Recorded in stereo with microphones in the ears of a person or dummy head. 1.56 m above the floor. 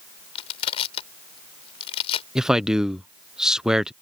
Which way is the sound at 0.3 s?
35° left (ahead or behind).